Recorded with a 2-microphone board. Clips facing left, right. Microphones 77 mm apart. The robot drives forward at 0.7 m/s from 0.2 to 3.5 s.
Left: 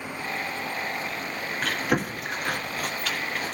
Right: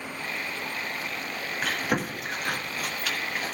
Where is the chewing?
5° right (ahead or behind), 1.4 m.